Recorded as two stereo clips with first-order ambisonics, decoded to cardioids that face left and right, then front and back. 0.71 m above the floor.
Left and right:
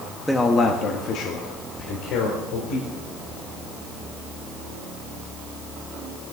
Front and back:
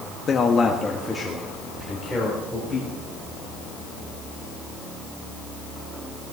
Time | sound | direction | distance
0.3 | a man speaking | 5° left | 0.9 m
1.8 | whispering | 115° left | 1.0 m